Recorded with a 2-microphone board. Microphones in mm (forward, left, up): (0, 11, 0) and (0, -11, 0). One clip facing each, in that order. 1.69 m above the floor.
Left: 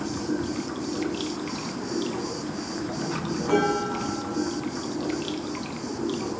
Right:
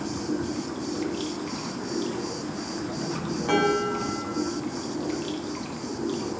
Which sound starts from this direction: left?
Running water, at 0.0 s.